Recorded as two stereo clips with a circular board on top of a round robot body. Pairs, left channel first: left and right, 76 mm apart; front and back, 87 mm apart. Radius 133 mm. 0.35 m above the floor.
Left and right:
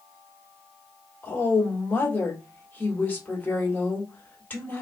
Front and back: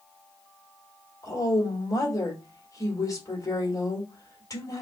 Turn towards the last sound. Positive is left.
turn(degrees=30)